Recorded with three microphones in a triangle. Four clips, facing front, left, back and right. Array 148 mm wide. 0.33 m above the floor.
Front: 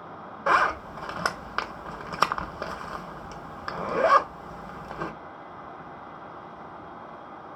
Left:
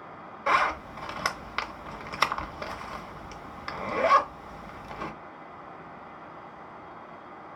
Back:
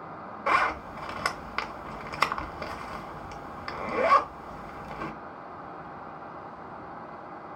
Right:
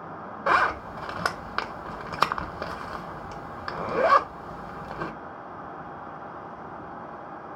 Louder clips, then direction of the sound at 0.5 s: Right 2 dB, front 3 dB; 45° right.